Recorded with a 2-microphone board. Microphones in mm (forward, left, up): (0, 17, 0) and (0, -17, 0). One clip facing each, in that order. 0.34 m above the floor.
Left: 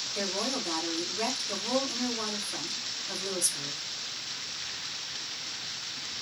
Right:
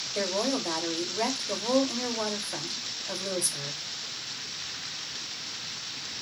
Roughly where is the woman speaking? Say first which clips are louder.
Right 5 dB; right.